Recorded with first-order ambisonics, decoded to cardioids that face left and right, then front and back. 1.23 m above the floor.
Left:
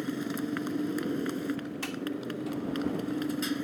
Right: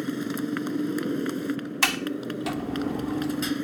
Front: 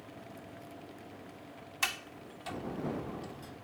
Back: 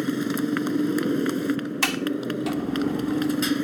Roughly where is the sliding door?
Behind right.